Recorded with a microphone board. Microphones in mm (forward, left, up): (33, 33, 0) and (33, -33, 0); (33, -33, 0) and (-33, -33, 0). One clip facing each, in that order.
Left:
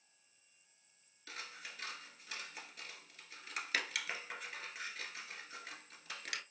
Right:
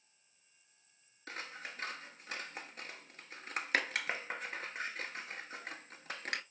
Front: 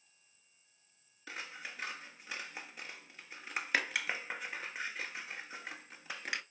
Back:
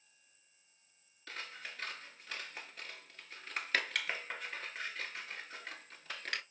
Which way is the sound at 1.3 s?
70° right.